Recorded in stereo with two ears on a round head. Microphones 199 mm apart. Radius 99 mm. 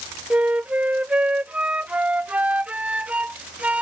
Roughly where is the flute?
Centre.